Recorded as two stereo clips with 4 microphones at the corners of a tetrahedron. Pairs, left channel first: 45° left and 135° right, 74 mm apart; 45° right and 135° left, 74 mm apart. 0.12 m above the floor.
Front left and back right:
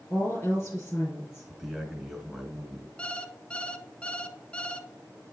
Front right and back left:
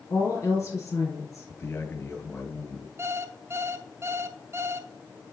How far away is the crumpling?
I don't hear crumpling.